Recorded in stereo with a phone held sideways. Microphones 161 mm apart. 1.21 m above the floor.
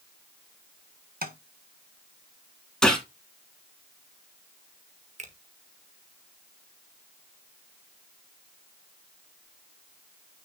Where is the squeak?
I don't hear a squeak.